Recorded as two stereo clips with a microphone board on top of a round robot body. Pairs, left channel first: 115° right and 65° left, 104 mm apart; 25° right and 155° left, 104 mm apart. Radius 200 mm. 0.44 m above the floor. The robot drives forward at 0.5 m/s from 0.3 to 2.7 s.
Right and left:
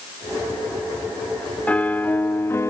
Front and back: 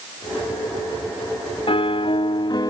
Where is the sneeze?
I don't hear a sneeze.